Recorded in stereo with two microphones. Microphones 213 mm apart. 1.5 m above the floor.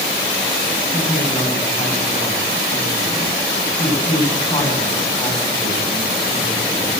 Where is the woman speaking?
20° left (ahead or behind), 9 m.